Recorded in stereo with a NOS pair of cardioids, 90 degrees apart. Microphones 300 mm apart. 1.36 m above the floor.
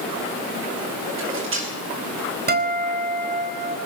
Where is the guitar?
30° right, 4.5 m.